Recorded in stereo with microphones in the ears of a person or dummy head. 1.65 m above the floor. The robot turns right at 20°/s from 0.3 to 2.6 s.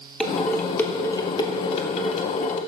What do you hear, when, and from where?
0.2 s dishes clattering: centre (ahead or behind), 3 m; by 2.6 s 45° left (ahead or behind), 3 m